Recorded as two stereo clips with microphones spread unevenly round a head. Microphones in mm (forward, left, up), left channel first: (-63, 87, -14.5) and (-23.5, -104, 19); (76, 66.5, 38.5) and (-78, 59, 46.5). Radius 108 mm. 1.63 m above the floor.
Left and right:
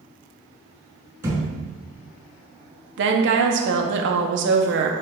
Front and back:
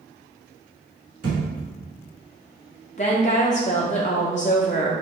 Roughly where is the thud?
Behind right.